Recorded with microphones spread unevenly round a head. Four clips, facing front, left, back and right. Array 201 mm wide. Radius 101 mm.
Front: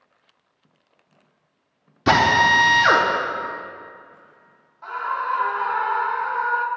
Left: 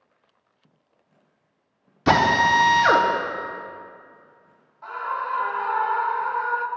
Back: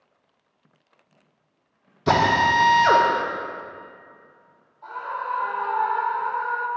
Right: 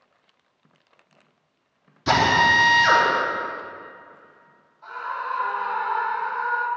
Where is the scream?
20° left, 2.5 m.